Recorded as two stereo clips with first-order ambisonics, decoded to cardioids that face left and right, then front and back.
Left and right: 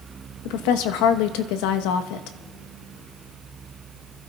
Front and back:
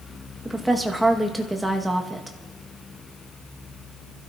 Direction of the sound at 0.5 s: 95° left.